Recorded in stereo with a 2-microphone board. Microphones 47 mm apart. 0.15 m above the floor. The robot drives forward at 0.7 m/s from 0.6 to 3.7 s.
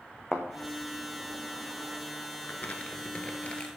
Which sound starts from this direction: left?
Crumpling, at 2.4 s.